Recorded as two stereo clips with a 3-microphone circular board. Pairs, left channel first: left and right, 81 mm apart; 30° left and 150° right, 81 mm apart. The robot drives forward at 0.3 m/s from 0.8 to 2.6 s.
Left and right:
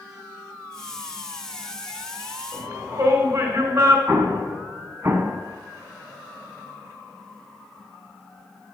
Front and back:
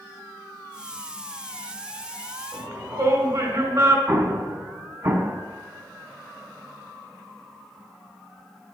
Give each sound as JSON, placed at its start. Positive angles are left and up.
{"t": 2.5, "sound": "a shout", "azimuth_deg": -130, "distance_m": 1.8}
{"t": 4.1, "sound": "an explosion", "azimuth_deg": -135, "distance_m": 1.0}